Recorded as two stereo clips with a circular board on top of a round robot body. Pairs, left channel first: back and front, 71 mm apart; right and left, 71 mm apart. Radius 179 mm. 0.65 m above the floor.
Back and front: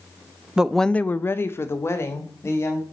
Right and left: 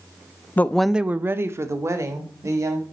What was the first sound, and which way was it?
A woman speaking, 65° right.